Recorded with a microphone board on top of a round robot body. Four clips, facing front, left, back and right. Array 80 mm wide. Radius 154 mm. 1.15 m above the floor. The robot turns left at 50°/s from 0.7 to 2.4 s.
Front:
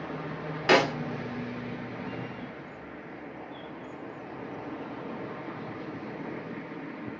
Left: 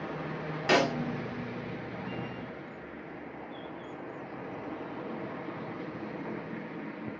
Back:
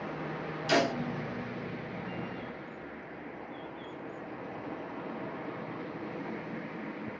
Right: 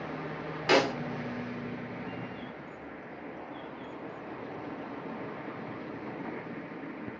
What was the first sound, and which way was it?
A snare drum, straight ahead.